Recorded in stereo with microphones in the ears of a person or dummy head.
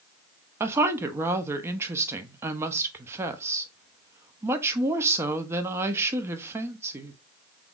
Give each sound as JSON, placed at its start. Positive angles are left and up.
{"t": 0.6, "sound": "a woman speaking", "side_deg": -15, "distance_m": 0.6}